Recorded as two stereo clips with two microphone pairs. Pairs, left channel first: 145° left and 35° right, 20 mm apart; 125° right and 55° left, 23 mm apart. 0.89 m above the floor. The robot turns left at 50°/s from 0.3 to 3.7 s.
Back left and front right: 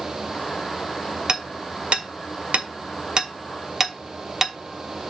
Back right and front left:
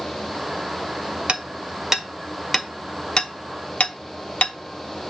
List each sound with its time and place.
1.3 s hammering: 20° left, 1.1 m; by 4.5 s 100° right, 1.1 m